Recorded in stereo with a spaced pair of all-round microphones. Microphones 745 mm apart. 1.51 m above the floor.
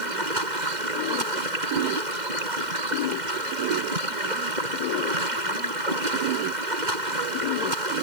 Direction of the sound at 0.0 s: 75° right (ahead or behind).